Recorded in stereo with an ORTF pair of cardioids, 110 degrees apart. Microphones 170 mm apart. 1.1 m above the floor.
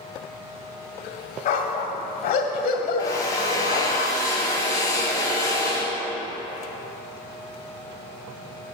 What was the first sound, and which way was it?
A dog barking, 60° left.